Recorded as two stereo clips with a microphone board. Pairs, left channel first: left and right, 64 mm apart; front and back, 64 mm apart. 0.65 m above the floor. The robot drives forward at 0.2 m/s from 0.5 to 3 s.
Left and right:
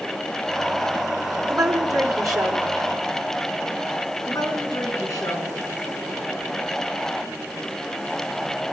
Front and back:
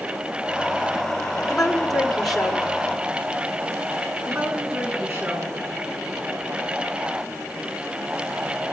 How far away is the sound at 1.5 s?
About 2 m.